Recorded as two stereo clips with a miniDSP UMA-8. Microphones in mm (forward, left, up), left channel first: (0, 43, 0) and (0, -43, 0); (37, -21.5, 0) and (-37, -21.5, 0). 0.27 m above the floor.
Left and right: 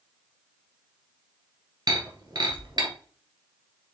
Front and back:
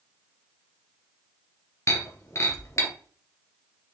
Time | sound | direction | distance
1.9 | breaking glass | 50° right | 2 m